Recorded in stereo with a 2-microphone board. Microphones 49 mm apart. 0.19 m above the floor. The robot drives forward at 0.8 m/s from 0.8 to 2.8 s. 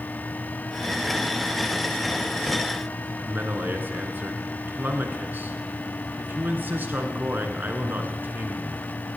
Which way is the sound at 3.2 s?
45° right (ahead or behind).